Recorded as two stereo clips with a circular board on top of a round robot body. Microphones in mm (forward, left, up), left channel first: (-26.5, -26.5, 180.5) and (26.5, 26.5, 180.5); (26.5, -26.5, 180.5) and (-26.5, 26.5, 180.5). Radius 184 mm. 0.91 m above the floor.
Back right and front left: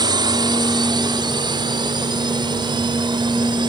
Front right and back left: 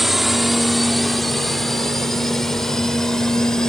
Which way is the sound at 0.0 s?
45° left.